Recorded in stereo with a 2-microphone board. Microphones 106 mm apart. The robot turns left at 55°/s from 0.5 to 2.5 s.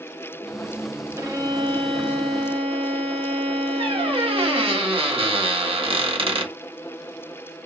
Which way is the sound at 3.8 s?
60° right (ahead or behind).